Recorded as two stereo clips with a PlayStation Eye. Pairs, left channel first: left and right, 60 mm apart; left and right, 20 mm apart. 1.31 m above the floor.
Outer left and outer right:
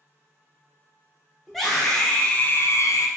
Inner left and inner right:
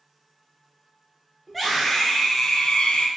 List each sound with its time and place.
1.5 s a scream: centre (ahead or behind), 1.4 m; by 3.1 s 65° left (ahead or behind), 0.6 m